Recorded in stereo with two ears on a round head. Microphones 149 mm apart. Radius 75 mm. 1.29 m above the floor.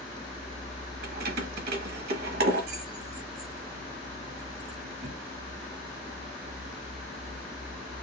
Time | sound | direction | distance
1.0 | keys jangling | 65° right (ahead or behind) | 1.0 m